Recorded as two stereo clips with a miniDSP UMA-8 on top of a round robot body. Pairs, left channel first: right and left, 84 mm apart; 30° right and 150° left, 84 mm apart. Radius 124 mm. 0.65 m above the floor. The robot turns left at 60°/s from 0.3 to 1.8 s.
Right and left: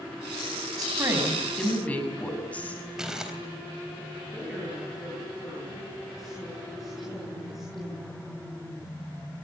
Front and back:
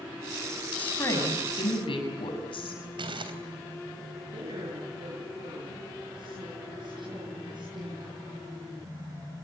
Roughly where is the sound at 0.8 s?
Ahead left.